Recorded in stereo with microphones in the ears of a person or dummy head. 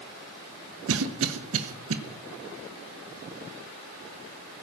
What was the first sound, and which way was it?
A cough, 75° right (ahead or behind).